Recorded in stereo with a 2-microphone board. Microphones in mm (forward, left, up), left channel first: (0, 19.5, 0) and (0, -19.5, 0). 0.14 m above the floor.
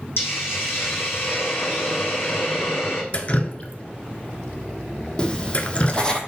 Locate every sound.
0.2 s a hiss: 85° left, 1.5 m
3.1 s dripping: 35° left (ahead or behind), 0.8 m
5.2 s writing: 25° left (ahead or behind), 0.9 m